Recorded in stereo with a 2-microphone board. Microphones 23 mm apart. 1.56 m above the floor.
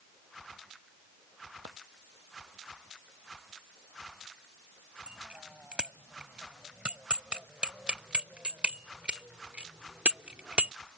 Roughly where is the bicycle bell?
Right.